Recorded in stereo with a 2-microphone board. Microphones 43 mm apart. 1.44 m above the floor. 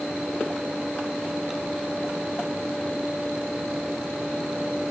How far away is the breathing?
I don't hear breathing.